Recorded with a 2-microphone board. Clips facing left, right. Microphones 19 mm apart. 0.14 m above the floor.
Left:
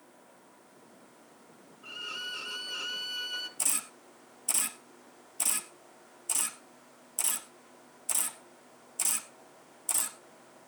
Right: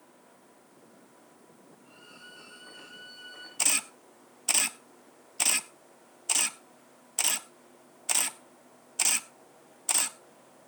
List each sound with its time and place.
1.8 s a violin: 70° left (ahead or behind), 1.1 m
3.6 s a camera shutter: 40° right (ahead or behind), 0.7 m